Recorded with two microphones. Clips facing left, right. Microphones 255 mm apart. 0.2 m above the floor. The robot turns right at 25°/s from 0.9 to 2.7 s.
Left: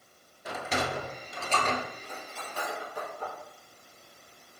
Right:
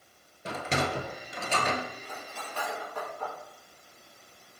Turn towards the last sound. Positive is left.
turn(degrees=10)  # may be behind; listen again after turning